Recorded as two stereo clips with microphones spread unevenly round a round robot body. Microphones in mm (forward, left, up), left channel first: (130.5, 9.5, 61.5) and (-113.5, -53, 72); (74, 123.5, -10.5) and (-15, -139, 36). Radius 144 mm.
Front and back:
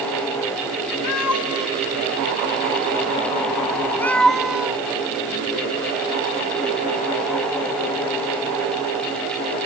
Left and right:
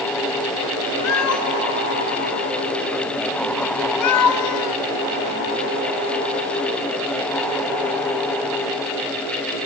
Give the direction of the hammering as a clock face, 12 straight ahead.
I don't hear hammering.